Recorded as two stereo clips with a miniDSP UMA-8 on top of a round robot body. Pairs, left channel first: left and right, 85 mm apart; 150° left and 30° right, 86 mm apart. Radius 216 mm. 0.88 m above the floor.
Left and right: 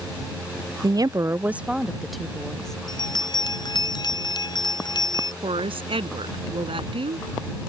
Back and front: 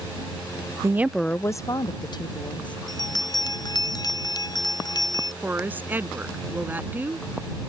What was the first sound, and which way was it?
A woman speaking, 70° right.